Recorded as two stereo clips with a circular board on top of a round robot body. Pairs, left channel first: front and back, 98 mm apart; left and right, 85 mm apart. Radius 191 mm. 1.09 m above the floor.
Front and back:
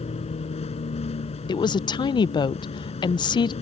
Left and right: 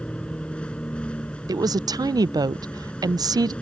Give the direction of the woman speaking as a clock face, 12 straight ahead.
2 o'clock.